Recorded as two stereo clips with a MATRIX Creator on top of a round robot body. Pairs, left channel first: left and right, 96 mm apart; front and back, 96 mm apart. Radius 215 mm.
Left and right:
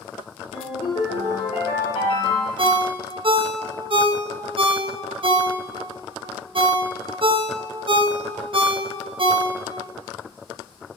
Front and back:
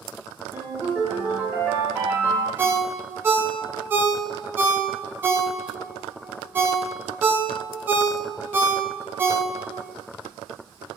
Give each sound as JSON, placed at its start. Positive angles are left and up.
{"t": 0.5, "sound": "a ringtone", "azimuth_deg": 110, "distance_m": 0.7}
{"t": 2.6, "sound": "a ringtone", "azimuth_deg": -115, "distance_m": 0.5}